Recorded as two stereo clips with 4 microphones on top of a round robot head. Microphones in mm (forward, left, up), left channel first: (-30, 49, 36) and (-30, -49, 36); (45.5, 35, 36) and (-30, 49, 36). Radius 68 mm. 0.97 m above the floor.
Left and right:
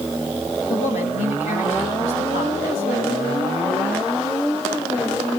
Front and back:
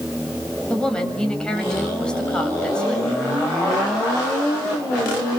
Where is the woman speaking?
70° left, 6.5 m.